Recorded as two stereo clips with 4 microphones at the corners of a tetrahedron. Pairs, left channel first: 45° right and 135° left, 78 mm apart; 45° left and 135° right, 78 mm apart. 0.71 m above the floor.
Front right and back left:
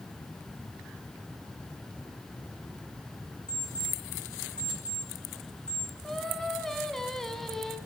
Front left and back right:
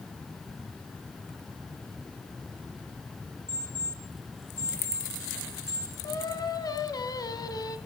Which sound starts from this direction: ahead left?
Singing, at 6.0 s.